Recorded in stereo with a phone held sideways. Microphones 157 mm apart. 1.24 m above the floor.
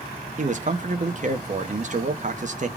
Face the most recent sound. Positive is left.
turn(degrees=-50)  # may be behind; listen again after turning